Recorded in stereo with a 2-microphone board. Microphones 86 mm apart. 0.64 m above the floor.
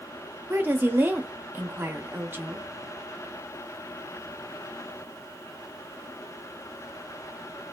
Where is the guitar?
I don't hear a guitar.